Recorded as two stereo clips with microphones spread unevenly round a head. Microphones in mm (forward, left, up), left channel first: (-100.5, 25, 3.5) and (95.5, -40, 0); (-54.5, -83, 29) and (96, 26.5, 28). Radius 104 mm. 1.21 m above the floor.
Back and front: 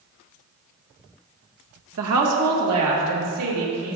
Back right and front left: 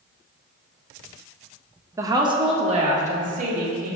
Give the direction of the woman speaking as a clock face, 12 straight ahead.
1 o'clock.